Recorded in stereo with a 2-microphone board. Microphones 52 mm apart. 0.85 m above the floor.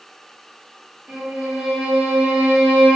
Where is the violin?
20° right (ahead or behind), 0.8 m.